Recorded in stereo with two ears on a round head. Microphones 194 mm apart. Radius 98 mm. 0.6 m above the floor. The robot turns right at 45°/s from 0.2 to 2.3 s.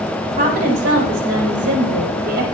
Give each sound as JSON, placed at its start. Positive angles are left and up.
{"t": 0.3, "sound": "a woman speaking", "azimuth_deg": -145, "distance_m": 3.5}